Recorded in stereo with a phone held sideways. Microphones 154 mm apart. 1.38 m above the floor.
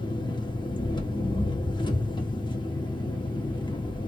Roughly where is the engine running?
Left.